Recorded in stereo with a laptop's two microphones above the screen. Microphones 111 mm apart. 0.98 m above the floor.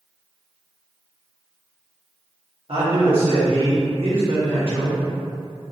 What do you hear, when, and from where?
2.7 s a man speaking: 60° right (ahead or behind), 1.5 m